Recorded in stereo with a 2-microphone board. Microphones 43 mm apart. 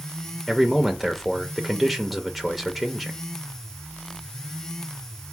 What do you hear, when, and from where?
0.5 s a man speaking: centre (ahead or behind), 0.6 m